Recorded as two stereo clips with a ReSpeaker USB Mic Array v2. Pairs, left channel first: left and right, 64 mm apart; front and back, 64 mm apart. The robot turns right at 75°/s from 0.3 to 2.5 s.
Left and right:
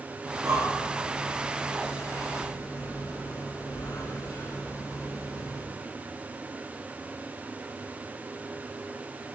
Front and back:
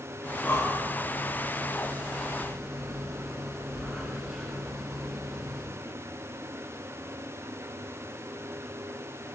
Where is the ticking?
I don't hear ticking.